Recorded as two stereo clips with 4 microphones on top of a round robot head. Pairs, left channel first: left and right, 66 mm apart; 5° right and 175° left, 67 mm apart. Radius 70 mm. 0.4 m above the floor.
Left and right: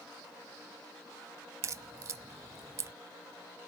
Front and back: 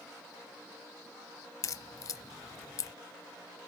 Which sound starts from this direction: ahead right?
A crack, at 1.6 s.